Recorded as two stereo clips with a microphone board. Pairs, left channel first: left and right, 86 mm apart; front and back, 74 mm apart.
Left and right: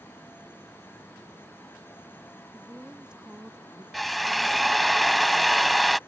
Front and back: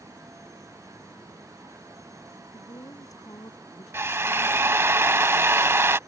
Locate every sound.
2.5 s a woman speaking: 10° right
3.9 s a drill: straight behind